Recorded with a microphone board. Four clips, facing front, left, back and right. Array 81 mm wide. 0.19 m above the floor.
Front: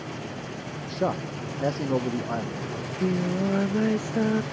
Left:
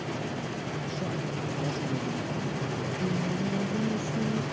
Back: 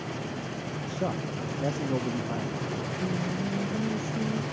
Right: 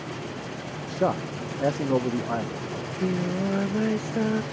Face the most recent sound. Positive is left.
turn(degrees=-40)